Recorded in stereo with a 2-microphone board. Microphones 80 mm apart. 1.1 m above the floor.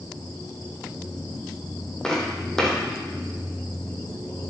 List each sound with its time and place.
2.0 s footsteps: 10° left (ahead or behind), 2.5 m